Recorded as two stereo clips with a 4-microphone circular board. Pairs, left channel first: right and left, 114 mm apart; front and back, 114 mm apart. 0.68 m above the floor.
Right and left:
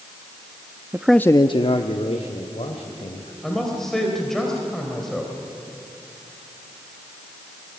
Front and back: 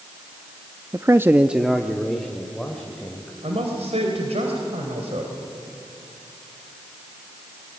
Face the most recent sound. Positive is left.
turn(degrees=-175)